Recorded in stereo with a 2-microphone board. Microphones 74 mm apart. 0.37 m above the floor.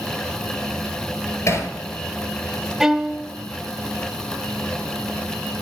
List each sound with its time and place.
1.5 s hammering: 45° left (ahead or behind), 4.5 m
2.8 s a violin: 5° right (ahead or behind), 0.9 m